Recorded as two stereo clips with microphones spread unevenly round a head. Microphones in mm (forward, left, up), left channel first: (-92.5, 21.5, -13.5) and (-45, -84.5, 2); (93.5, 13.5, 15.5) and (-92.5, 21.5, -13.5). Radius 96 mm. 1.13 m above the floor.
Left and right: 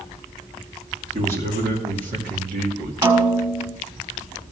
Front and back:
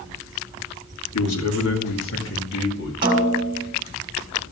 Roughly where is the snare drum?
Behind right.